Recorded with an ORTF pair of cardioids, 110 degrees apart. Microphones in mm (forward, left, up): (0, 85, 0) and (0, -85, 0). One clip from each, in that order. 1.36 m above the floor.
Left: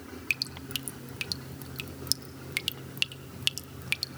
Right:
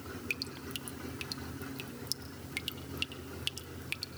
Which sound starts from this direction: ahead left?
Dripping, at 0.3 s.